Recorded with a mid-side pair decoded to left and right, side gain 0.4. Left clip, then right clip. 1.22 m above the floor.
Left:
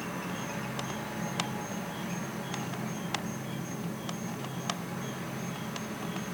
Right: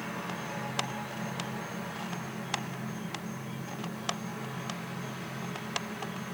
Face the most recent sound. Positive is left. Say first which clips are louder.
# even
turn(degrees=45)